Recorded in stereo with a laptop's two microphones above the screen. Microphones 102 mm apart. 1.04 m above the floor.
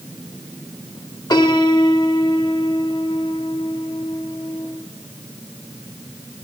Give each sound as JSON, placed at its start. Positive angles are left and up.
{"t": 1.3, "sound": "a piano", "side_deg": 40, "distance_m": 1.3}